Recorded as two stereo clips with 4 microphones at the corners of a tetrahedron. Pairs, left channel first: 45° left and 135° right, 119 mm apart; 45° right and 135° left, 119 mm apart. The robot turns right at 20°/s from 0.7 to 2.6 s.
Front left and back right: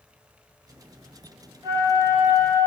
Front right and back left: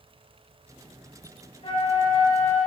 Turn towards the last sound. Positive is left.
turn(degrees=-60)